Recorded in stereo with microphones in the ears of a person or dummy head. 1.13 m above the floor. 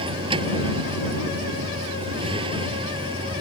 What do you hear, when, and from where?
0.0 s a vehicle: 25° right (ahead or behind)